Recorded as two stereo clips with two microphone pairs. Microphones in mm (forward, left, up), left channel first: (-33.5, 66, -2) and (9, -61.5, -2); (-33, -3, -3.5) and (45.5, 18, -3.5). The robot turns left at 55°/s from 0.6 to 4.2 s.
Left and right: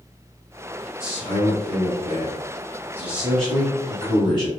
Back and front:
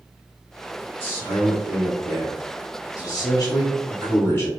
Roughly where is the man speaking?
Ahead right.